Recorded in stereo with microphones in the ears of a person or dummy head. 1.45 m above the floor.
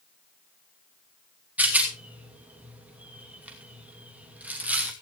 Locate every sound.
1.6 s a rattle: 5° right (ahead or behind), 2.5 m